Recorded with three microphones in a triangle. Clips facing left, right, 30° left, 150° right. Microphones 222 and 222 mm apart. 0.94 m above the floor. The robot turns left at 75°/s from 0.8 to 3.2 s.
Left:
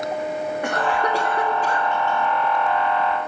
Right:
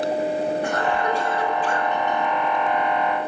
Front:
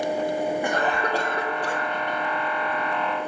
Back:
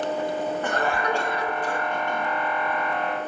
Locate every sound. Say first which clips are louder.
0.6 s a cough: even, even; 105° left, 1.5 m; by 1.9 s 25° left, 1.5 m